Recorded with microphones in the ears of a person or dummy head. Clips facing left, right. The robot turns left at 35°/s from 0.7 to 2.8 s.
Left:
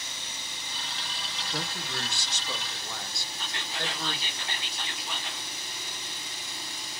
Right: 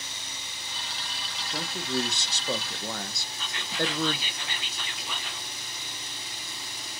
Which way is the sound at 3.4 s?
75° right (ahead or behind).